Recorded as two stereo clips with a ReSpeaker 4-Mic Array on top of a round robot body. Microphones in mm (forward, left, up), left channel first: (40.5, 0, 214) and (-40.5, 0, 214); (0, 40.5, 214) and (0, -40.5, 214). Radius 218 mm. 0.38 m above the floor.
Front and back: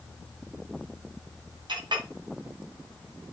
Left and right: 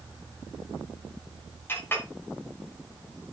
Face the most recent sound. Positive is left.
turn(degrees=155)